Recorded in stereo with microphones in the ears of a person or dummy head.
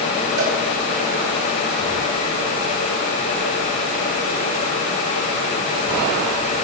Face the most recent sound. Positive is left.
turn(degrees=-70)  # may be behind; listen again after turning